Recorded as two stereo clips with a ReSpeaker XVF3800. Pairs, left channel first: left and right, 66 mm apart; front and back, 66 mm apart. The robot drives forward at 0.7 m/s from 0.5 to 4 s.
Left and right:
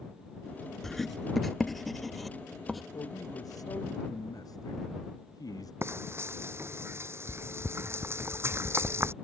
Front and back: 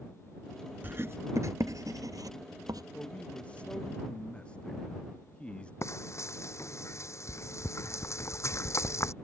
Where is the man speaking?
70° left; by 5.7 s 75° left.